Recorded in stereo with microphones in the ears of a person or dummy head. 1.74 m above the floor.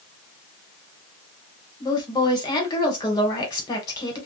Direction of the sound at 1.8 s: 20° left (ahead or behind).